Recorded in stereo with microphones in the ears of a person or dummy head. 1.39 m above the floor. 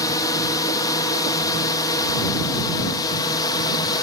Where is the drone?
25° left (ahead or behind); by 4.0 s 30° left (ahead or behind).